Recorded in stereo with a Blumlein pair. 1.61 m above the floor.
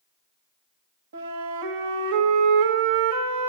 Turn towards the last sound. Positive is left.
turn(degrees=-60)